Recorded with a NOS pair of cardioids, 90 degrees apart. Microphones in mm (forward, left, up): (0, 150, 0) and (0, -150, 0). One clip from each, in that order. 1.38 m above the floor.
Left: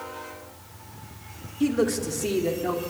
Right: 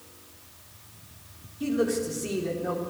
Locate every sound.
1.6 s a man speaking: 45° left, 4 m